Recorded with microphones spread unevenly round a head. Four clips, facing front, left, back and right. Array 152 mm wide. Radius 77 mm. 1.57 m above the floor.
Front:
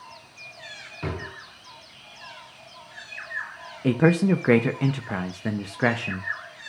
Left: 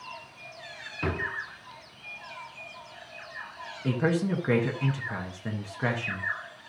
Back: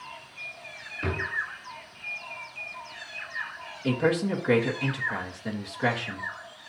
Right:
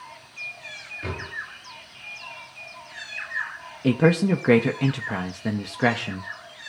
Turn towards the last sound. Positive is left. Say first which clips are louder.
# right 7 dB, front 5 dB
turn(degrees=-50)